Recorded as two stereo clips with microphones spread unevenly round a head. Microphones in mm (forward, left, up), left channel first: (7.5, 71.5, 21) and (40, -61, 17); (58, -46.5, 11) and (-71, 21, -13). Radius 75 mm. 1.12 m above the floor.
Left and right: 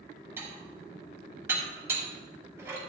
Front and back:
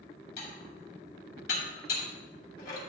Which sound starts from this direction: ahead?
Dishes clattering, at 0.4 s.